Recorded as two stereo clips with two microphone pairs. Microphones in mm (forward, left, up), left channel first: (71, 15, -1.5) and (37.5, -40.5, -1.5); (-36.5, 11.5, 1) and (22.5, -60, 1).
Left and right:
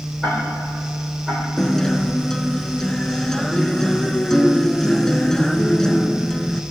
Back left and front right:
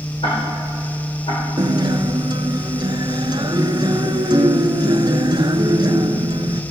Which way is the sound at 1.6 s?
20° right.